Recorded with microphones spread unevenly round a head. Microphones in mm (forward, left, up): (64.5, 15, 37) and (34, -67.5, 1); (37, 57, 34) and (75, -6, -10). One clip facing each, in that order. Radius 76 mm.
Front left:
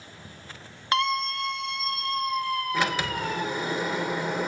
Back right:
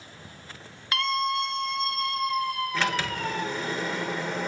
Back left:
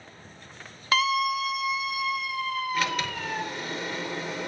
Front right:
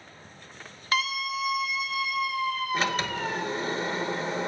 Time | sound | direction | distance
0.9 | a scream | 150° left | 0.6 m
2.7 | a sliding door | 15° right | 0.8 m